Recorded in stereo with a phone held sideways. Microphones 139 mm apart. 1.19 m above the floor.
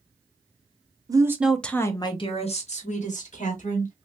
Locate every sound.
1.1 s a woman speaking: 25° right (ahead or behind), 0.7 m; by 3.9 s 70° left (ahead or behind), 1.8 m